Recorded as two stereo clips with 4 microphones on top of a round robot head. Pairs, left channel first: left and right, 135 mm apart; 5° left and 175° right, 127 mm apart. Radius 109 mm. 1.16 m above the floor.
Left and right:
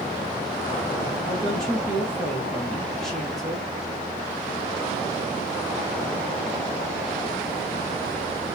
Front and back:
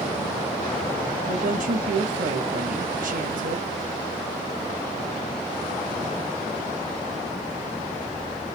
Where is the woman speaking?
Straight behind, 1.2 m.